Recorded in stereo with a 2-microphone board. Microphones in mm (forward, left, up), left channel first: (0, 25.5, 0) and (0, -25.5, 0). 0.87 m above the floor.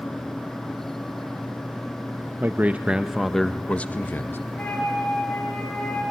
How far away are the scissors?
No scissors in this recording.